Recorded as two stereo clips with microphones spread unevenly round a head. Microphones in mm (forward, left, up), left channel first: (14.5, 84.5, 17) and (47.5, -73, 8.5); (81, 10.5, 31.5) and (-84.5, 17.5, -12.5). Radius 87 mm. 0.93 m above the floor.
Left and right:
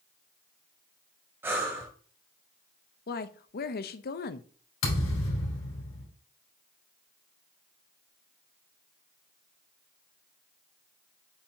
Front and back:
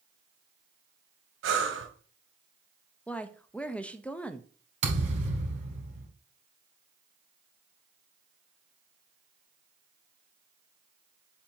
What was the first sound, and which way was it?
Breathing, 155° right.